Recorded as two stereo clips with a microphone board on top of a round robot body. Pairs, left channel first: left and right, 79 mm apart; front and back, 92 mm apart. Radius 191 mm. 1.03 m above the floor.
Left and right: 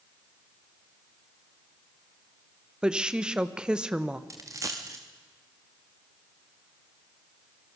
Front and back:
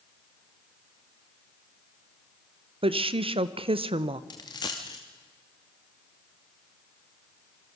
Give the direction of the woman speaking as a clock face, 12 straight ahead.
6 o'clock.